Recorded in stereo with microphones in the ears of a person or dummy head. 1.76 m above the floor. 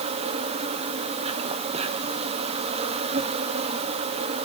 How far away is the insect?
About 1.9 m.